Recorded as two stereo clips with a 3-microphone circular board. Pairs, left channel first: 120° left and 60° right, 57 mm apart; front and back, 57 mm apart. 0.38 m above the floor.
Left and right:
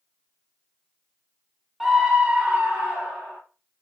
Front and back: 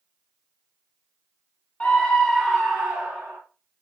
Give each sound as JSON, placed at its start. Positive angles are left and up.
{"t": 1.8, "sound": "a scream", "azimuth_deg": 10, "distance_m": 0.8}